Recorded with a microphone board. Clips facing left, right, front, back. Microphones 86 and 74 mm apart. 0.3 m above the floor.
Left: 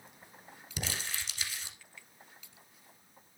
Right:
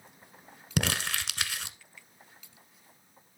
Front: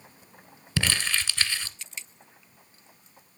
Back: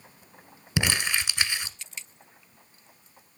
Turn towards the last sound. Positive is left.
turn(degrees=-105)